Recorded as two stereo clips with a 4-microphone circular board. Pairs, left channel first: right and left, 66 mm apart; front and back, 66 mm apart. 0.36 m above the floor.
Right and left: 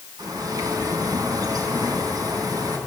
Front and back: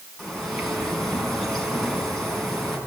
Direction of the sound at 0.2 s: 90° left.